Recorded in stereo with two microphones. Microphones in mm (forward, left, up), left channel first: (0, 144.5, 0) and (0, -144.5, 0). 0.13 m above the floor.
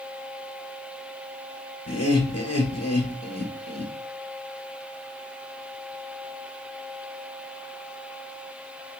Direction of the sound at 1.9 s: 45° left (ahead or behind).